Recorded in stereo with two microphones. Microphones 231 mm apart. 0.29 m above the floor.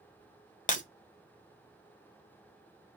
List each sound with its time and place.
0.7 s breaking glass: 35° left (ahead or behind), 0.6 m